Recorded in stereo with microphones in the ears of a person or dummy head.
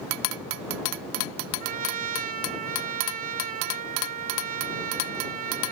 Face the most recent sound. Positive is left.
turn(degrees=-45)  # may be behind; listen again after turning